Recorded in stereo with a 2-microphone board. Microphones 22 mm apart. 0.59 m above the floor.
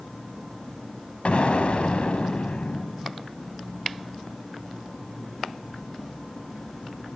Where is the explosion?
65° left (ahead or behind), 1.1 m.